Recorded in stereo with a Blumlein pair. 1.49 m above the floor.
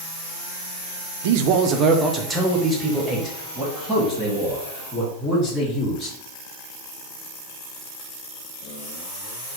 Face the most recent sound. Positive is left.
turn(degrees=10)